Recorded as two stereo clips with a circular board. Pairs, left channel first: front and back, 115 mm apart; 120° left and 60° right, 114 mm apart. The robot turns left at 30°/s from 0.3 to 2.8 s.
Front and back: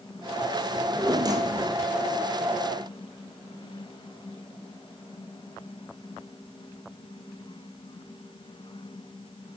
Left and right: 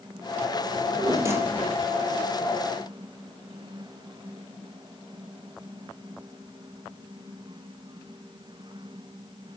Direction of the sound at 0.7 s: 110° right.